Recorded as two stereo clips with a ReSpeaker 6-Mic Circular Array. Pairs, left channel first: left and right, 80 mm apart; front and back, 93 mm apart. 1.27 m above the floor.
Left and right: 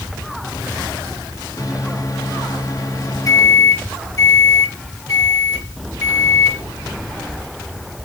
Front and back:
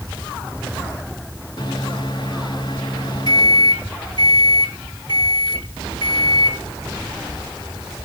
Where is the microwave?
40° left, 1.2 m.